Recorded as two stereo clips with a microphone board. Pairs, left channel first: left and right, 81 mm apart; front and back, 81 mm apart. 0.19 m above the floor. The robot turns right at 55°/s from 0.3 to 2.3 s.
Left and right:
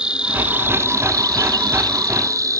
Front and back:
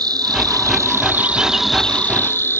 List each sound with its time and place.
0.0 s an insect: 165° right; by 2.6 s 55° right